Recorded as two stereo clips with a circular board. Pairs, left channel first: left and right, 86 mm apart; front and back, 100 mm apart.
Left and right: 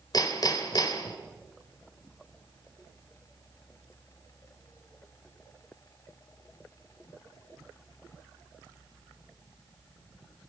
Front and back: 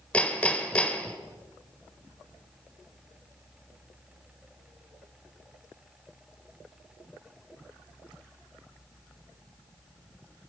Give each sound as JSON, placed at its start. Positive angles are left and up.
{"t": 0.1, "sound": "hammering", "azimuth_deg": 75, "distance_m": 1.5}